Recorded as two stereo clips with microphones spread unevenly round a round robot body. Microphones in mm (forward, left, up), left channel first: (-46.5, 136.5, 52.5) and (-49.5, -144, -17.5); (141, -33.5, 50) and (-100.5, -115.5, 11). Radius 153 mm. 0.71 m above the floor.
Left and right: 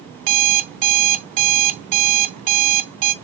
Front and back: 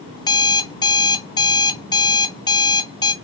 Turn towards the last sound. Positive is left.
turn(degrees=-55)